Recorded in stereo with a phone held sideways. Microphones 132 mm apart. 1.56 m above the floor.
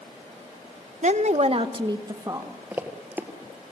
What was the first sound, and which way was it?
A woman speaking, 60° right (ahead or behind).